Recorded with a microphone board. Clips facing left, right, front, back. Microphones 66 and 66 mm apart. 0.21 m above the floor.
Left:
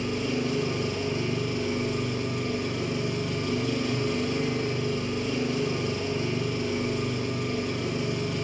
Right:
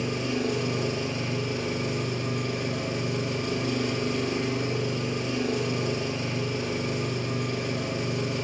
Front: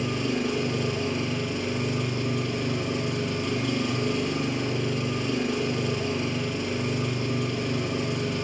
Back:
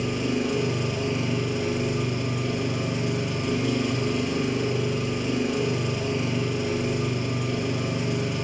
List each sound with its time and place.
0.0 s an engine running: 95° right, 1.5 m